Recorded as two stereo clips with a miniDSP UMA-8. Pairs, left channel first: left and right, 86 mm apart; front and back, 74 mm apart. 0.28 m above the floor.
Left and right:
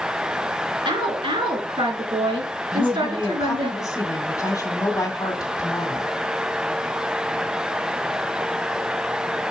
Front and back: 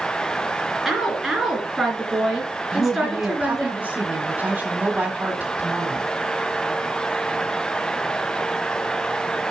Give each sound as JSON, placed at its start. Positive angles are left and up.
{"t": 0.8, "sound": "a woman speaking", "azimuth_deg": -95, "distance_m": 3.0}
{"t": 2.7, "sound": "a woman speaking", "azimuth_deg": 120, "distance_m": 1.6}